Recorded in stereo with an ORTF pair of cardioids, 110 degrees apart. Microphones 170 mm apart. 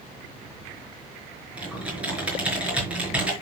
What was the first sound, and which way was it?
Typing on a keyboard, 10° right.